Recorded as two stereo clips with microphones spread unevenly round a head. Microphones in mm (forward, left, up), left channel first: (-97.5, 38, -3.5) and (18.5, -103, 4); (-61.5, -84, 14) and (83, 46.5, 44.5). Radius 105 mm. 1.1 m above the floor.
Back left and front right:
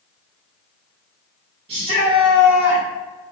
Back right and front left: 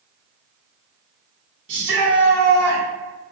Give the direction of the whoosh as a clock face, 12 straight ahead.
I don't hear a whoosh.